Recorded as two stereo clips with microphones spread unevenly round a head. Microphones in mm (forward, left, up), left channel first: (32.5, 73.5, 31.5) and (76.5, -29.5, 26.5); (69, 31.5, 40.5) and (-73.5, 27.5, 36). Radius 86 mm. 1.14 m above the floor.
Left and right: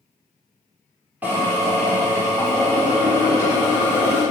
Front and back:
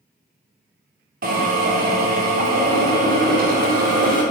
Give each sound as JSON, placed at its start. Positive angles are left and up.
{"t": 1.2, "sound": "a drill", "azimuth_deg": -145, "distance_m": 4.0}